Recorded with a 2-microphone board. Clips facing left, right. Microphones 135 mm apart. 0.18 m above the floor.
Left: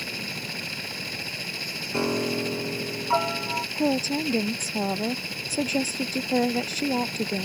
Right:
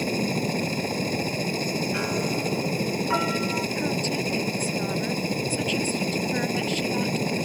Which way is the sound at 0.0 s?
45° right (ahead or behind).